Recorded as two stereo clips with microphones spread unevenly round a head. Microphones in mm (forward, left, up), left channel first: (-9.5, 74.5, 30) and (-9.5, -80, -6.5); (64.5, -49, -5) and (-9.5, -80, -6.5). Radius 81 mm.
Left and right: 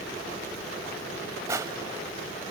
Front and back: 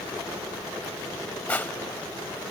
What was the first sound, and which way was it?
Crushing, 10° right.